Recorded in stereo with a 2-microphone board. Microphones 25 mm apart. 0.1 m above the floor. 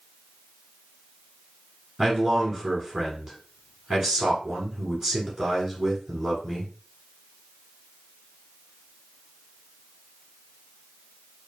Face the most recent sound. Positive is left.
turn(degrees=-20)  # may be behind; listen again after turning